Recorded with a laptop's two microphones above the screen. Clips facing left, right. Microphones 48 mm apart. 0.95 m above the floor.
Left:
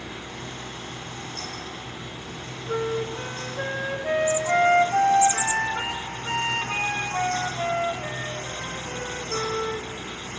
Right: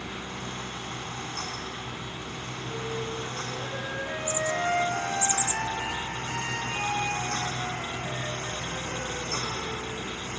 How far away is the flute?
About 2 m.